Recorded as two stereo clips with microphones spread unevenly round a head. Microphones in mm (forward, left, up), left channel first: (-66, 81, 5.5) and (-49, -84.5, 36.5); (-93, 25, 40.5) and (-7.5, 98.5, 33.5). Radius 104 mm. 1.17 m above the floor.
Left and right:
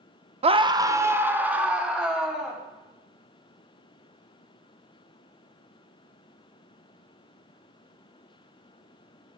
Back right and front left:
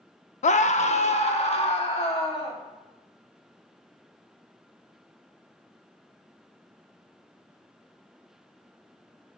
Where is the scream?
145° right, 0.7 m; by 2.6 s 175° right, 2 m.